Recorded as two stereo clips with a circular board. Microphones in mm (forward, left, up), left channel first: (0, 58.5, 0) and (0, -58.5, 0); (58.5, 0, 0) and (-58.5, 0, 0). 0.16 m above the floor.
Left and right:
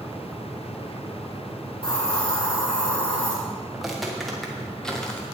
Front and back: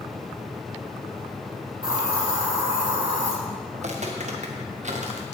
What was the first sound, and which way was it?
A hiss, 135° left.